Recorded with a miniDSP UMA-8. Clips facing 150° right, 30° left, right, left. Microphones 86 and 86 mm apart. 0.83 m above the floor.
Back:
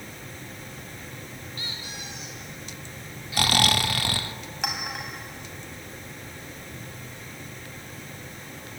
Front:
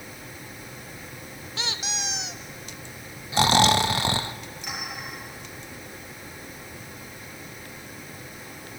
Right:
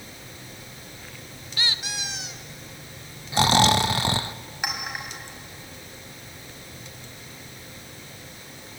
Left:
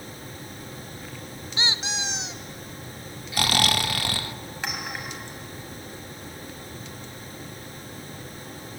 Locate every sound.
1.6 s a squeak: 25° left, 0.7 m
3.3 s snoring: 30° right, 0.5 m
4.6 s a clink: 165° right, 4 m